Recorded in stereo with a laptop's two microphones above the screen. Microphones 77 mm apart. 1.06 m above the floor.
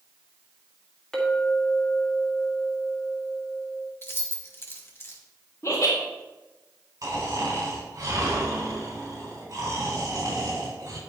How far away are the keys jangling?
About 0.9 m.